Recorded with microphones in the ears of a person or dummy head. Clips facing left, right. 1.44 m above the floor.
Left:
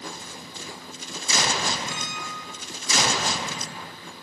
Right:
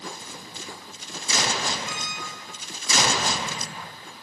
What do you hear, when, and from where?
1.9 s a squeak: 70° right (ahead or behind), 2.5 m